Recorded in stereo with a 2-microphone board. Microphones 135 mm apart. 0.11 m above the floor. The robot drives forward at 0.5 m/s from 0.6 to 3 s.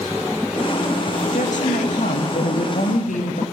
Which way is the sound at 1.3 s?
70° left (ahead or behind).